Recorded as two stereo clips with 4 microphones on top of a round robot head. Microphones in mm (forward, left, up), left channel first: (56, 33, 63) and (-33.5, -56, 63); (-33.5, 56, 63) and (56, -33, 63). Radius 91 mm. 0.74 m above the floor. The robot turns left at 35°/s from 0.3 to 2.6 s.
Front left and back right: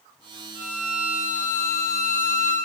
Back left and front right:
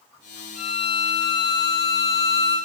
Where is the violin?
155° left, 6.5 m; by 2.6 s 85° left, 6.5 m.